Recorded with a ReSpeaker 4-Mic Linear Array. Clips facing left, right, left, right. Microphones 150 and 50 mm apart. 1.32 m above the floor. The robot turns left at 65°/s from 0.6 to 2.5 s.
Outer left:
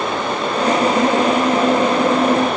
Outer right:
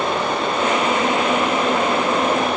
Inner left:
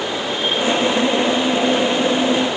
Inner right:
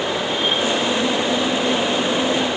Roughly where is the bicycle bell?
I don't hear a bicycle bell.